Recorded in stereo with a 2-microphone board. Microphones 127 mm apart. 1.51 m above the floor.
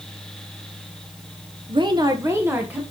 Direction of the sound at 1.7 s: 45° right (ahead or behind).